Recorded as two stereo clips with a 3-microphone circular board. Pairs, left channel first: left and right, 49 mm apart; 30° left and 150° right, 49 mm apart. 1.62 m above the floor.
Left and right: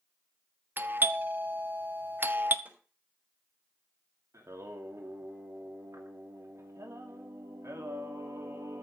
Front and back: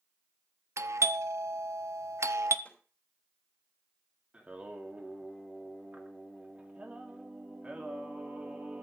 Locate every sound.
0.8 s a doorbell: 135° right, 1.1 m
2.6 s a snare drum: 30° right, 5.5 m
4.3 s singing: 85° right, 3 m